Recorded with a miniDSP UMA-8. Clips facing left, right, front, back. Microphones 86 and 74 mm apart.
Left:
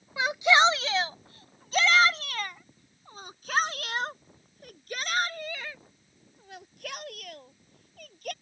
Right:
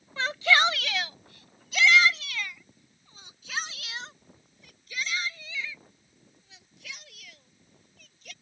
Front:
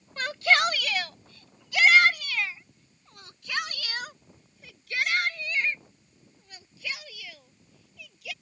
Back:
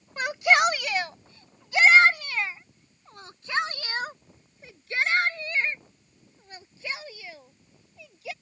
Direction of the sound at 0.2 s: 140° left.